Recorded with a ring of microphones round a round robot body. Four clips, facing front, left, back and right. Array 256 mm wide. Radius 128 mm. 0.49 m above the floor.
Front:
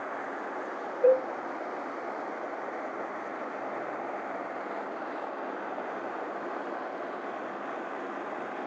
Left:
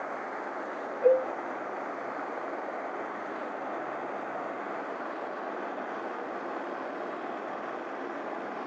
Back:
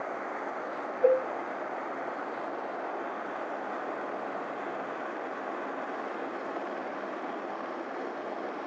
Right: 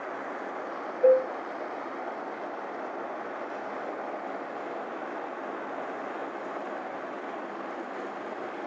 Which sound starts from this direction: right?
A cowbell, at 1.0 s.